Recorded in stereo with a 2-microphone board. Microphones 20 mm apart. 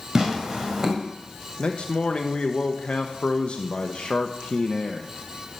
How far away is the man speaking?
About 0.7 m.